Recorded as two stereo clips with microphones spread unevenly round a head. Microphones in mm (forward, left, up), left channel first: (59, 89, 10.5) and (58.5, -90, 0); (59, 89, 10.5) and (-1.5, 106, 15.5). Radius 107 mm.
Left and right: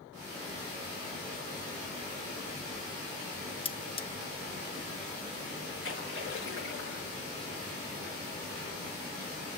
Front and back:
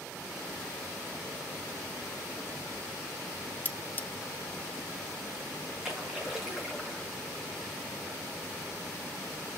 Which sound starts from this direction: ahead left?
Cutlery clinking, at 3.6 s.